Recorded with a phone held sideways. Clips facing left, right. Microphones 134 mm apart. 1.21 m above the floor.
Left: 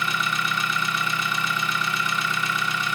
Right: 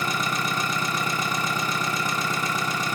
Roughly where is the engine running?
Right.